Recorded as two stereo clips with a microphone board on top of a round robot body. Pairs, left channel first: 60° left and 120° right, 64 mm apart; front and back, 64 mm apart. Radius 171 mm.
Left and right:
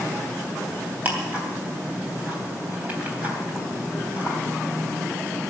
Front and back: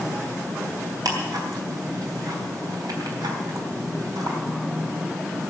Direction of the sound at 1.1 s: 175° left.